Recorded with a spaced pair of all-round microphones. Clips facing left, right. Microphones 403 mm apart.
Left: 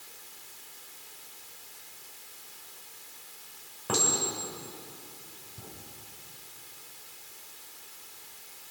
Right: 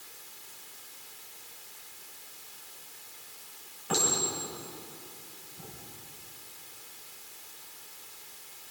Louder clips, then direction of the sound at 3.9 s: Left 1 dB; 75° left (ahead or behind).